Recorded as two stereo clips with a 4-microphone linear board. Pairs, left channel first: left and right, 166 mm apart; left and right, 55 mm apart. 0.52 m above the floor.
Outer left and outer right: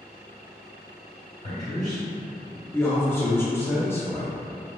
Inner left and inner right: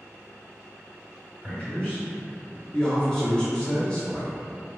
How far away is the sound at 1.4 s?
About 1.8 m.